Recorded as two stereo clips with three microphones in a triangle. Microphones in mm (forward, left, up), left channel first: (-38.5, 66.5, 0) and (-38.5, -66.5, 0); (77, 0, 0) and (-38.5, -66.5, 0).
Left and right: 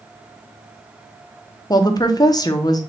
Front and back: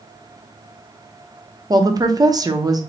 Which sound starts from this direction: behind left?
A woman speaking, at 1.7 s.